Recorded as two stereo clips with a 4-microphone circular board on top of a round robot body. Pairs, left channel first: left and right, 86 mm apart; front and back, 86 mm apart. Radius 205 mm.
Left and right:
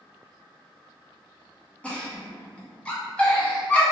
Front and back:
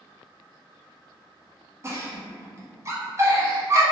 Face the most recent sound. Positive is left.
turn(degrees=155)